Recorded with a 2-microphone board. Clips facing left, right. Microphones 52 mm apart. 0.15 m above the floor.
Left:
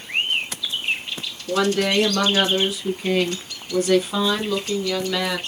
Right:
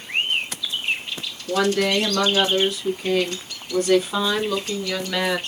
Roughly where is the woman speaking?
Centre.